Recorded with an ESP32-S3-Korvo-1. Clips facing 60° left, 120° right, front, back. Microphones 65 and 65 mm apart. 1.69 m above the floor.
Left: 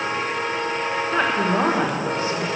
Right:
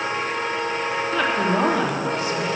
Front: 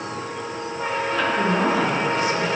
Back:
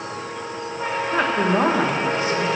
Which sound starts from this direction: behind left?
A woman speaking, at 1.1 s.